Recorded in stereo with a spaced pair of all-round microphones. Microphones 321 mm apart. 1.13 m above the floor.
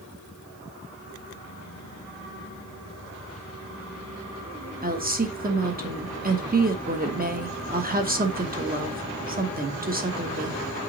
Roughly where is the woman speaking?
Right.